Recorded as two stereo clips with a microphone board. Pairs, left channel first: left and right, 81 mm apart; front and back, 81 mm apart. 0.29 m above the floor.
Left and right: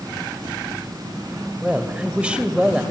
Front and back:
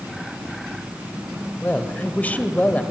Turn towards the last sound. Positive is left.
turn(degrees=-35)